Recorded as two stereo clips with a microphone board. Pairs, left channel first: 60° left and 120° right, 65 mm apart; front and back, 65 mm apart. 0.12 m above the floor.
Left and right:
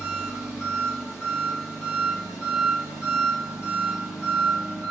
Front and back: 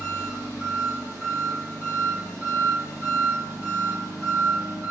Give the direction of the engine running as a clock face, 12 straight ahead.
6 o'clock.